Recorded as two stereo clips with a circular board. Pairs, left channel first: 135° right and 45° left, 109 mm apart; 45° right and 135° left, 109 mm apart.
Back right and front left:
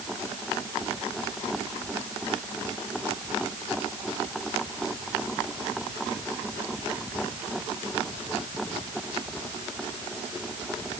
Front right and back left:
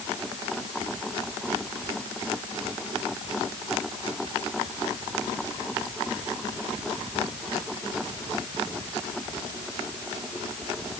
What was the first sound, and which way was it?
Only background noise.